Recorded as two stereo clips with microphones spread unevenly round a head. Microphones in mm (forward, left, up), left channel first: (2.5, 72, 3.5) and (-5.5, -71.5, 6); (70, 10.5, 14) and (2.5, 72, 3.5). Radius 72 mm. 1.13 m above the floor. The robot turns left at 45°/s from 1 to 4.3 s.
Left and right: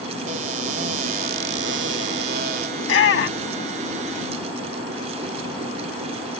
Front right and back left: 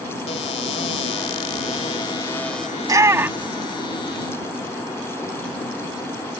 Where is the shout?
90° left; by 3.7 s 50° left.